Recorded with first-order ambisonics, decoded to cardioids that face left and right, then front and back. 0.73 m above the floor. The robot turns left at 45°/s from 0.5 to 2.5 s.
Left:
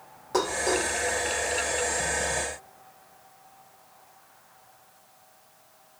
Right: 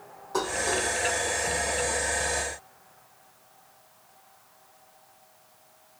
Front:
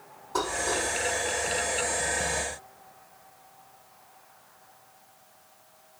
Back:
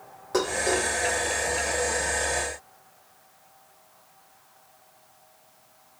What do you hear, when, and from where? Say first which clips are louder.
0.3 s dishes clattering: left 2 dB, back 3 dB; 150° left, 1.7 m; by 0.9 s 130° left, 1.7 m